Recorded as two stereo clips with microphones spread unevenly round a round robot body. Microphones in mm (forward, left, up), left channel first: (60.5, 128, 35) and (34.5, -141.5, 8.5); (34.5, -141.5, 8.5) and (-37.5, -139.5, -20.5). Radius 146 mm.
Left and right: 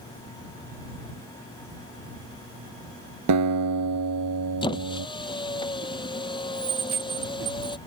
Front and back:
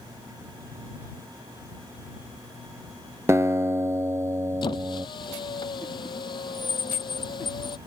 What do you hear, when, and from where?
3.3 s a guitar: 125° right
4.6 s a squeak: 10° left